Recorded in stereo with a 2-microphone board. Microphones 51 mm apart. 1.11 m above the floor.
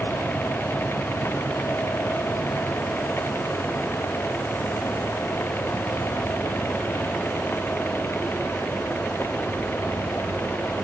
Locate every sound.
Only background noise.